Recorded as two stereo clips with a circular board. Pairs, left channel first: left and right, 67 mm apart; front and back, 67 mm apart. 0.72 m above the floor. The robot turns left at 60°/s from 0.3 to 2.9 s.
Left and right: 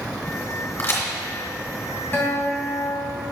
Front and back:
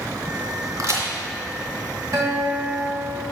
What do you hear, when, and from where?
0.8 s a crack: 150° left, 2 m; by 1.1 s 135° left, 2 m
2.1 s a guitar: 150° left, 2.5 m; by 3.2 s 105° left, 2.5 m